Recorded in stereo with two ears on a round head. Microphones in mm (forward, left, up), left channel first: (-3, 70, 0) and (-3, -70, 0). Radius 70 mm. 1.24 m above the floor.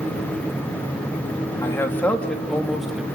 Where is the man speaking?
20° left (ahead or behind), 2.5 m; by 3.0 s 5° right (ahead or behind), 2.5 m.